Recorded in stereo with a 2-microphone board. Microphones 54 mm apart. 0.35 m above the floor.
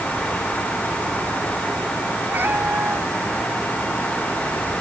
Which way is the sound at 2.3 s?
40° right (ahead or behind).